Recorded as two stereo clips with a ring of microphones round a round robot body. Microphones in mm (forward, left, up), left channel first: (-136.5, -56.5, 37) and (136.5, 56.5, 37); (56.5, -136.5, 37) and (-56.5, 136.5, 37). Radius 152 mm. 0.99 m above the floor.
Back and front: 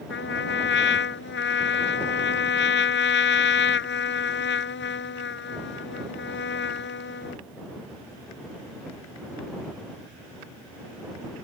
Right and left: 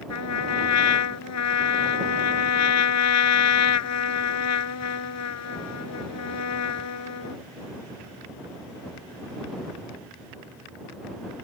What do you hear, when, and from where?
0.1 s a trumpet: 105° right